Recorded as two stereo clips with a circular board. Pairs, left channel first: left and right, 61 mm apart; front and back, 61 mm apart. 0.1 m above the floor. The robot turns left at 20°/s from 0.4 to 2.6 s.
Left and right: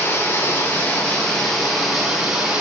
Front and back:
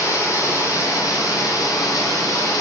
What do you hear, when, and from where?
0.0 s running water: 30° left, 4 m; by 2.6 s 15° right, 4 m